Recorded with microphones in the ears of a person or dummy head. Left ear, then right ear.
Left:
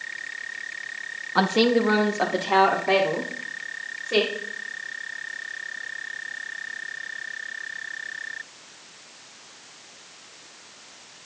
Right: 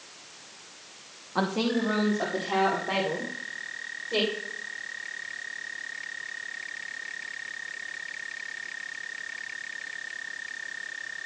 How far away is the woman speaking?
About 0.6 m.